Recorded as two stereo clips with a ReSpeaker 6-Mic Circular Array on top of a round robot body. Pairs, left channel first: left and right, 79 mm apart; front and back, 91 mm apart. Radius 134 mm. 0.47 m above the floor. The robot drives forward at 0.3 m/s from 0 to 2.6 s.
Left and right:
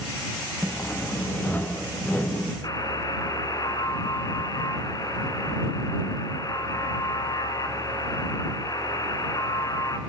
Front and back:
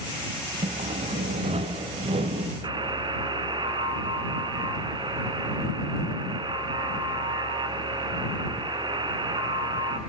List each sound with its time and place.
0.6 s sawing: 155° left, 1.2 m; by 2.5 s 165° left, 1.7 m
2.6 s a buzzer: 135° left, 3 m